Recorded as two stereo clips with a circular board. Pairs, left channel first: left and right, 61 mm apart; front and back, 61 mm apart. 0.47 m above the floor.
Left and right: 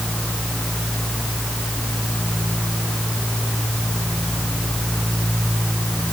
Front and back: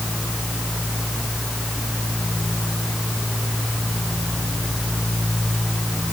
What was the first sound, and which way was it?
Only background noise.